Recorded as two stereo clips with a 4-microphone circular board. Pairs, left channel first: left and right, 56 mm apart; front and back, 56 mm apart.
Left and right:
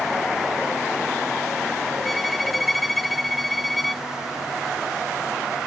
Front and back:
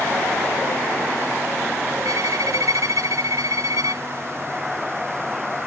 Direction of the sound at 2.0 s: Straight behind.